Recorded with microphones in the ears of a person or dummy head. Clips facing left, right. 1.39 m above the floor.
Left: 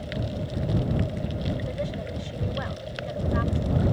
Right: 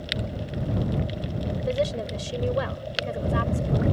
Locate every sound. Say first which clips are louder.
1.6 s a woman speaking: right 6 dB; 55° right (ahead or behind)